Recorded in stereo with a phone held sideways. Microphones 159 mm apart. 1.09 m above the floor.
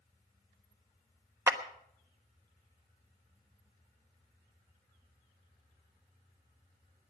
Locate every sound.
1.5 s a clap: 15° right (ahead or behind), 1.1 m